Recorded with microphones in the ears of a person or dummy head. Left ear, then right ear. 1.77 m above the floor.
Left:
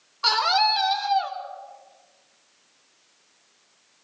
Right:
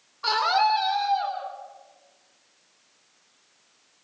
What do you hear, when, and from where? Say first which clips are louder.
0.2 s a scream: left 2 dB; 20° left (ahead or behind), 5 m; by 1.4 s 35° left (ahead or behind), 5.5 m